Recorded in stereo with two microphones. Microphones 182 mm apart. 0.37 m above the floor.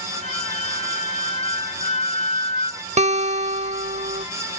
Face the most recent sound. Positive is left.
turn(degrees=-40)  # may be behind; listen again after turning